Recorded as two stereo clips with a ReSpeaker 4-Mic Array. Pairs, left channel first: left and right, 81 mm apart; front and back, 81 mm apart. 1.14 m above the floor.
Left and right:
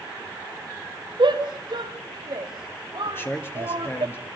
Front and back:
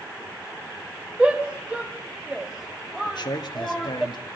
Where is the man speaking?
30° left, 1.8 m.